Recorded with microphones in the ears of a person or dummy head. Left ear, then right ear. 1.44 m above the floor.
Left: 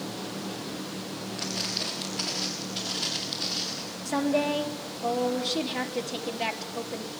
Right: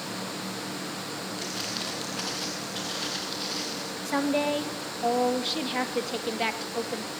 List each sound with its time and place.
1.4 s footsteps: 40° right (ahead or behind), 6.5 m; by 3.8 s 25° right (ahead or behind), 7.5 m
4.0 s a woman speaking: 30° right (ahead or behind), 2 m